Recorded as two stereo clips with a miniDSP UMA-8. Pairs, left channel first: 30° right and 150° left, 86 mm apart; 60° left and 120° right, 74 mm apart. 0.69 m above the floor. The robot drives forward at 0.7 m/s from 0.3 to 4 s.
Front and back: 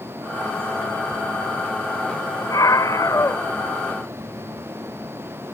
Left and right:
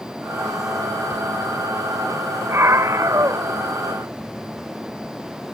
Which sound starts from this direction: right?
A scream, at 2.5 s.